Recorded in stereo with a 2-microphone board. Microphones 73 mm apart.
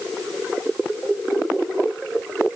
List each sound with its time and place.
Only background noise.